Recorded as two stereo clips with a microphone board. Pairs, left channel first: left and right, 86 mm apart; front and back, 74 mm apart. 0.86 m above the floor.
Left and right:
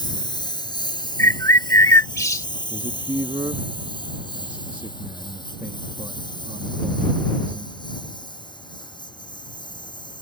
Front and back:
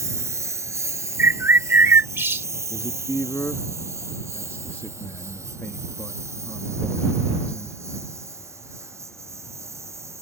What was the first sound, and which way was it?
A lawn mower, 125° left.